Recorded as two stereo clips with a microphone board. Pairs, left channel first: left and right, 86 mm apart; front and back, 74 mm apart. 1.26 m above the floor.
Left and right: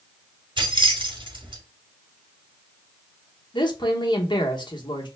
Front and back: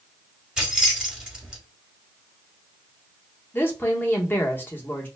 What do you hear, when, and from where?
0.6 s keys jangling: 100° right, 1.8 m
3.5 s a woman speaking: 60° left, 1.3 m